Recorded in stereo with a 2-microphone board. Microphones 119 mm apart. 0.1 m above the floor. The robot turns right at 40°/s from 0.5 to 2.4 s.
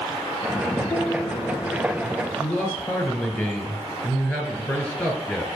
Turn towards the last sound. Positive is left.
turn(degrees=0)  # may be behind; listen again after turning